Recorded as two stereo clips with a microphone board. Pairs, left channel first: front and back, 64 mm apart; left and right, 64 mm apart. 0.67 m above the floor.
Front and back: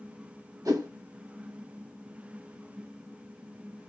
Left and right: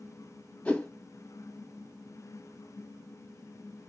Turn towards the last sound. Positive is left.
turn(degrees=160)